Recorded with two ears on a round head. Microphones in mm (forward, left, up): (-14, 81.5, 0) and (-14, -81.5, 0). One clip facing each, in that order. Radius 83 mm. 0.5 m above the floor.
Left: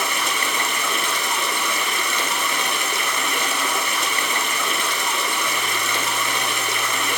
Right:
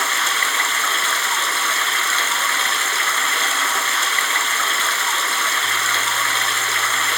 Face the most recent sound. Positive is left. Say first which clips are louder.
# even
turn(degrees=15)  # may be behind; listen again after turning